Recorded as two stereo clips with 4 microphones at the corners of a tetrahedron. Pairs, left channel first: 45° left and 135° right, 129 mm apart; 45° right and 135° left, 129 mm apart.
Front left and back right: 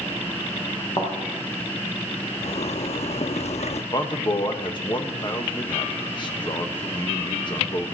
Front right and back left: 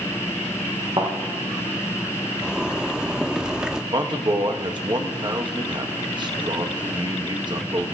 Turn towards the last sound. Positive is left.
turn(degrees=90)